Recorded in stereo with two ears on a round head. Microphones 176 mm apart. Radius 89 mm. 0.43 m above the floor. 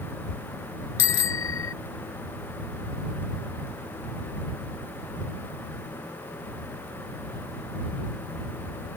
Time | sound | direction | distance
1.0 | a bicycle bell | 70° left (ahead or behind) | ?